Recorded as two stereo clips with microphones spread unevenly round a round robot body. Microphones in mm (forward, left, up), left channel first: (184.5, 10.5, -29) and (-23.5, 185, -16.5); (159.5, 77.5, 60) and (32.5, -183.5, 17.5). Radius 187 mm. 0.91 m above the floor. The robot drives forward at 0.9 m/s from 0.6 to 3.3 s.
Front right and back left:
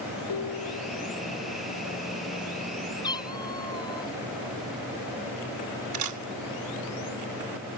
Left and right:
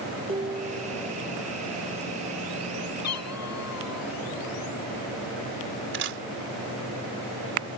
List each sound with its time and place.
0.3 s dishes clattering: 45° right
3.0 s a cat meowing: 35° left
5.9 s a camera shutter: 175° right